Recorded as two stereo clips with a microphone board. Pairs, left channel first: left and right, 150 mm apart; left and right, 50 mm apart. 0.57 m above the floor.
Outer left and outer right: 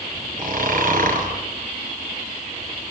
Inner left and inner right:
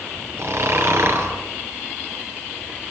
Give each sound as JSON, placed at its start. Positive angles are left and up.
{"t": 0.4, "sound": "snoring", "side_deg": -65, "distance_m": 3.5}